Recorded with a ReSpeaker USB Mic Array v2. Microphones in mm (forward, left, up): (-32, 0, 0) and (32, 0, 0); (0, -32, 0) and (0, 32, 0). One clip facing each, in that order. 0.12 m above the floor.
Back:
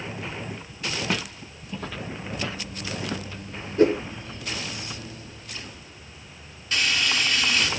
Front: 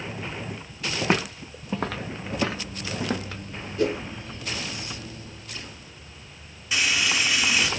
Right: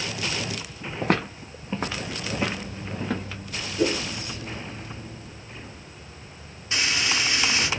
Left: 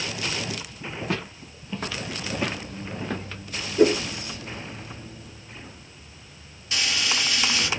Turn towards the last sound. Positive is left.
turn(degrees=-70)